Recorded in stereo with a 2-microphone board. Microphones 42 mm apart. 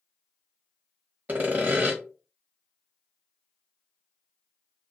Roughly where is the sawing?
Right.